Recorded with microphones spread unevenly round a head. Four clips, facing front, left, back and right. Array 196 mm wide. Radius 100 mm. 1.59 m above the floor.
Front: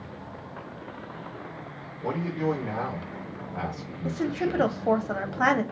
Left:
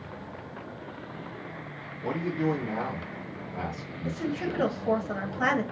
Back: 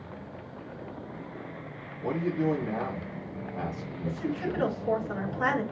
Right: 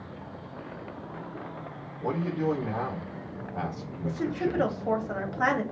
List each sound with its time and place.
2.0 s a man speaking: 50° right, 2 m
4.0 s a woman speaking: 10° right, 1.1 m